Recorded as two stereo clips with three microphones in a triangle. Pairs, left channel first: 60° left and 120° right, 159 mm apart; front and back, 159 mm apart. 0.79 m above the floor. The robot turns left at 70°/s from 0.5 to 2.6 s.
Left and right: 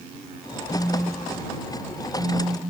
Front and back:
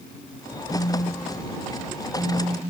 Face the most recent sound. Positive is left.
turn(degrees=-140)